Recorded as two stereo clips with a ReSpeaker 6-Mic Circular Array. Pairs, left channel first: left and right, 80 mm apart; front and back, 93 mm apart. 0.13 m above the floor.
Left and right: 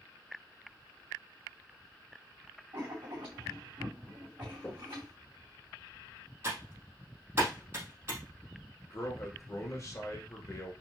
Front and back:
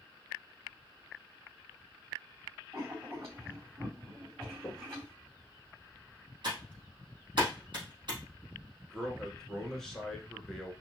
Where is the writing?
120° right, 3 m.